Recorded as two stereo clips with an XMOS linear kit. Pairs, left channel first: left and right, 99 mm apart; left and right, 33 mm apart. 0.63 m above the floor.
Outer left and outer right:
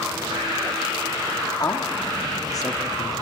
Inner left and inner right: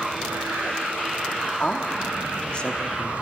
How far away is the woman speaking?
About 1.1 m.